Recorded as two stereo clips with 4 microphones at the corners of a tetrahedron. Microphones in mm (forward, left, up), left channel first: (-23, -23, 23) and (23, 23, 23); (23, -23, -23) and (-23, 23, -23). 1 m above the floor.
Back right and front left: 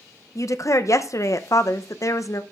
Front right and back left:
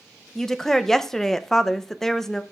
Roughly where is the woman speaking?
Behind right.